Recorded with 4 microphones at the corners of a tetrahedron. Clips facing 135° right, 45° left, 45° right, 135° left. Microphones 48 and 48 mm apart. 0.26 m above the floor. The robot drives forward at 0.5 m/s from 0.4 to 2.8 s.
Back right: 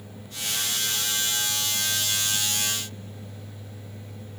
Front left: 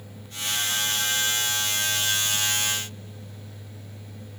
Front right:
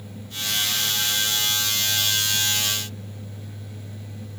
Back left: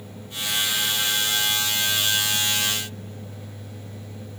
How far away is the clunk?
I don't hear a clunk.